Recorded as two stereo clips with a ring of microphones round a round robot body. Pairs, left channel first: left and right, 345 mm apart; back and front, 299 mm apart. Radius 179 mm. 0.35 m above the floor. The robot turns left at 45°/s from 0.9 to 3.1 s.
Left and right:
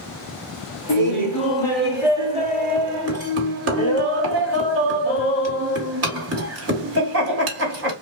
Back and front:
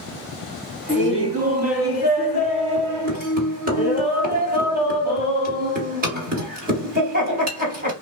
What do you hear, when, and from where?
0.9 s laughter: 45° left, 2 m; by 7.9 s 55° right, 2 m